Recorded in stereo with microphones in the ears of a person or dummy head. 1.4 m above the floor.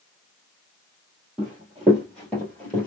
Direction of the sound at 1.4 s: 5° right (ahead or behind).